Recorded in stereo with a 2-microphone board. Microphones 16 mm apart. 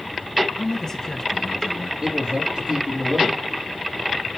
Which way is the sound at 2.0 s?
60° right (ahead or behind).